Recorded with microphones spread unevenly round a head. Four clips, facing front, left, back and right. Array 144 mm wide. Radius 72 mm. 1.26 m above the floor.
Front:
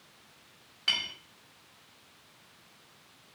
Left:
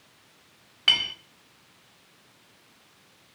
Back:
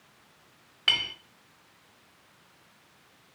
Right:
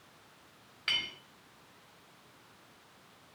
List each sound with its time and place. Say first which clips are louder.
0.9 s a clink: left 9 dB, back 4 dB; 125° left, 2.5 m